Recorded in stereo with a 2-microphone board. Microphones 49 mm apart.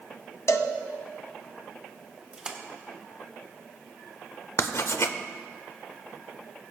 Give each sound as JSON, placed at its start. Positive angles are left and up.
{"t": 0.5, "sound": "a cowbell", "side_deg": 75, "distance_m": 0.7}
{"t": 2.3, "sound": "a splash", "side_deg": -15, "distance_m": 1.1}
{"t": 4.6, "sound": "writing", "side_deg": 65, "distance_m": 0.6}